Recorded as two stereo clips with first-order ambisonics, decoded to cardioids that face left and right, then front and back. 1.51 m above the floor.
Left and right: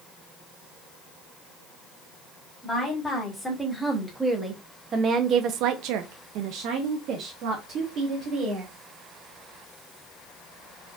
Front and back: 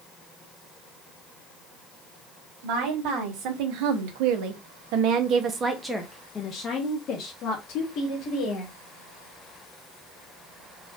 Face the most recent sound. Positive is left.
turn(degrees=-35)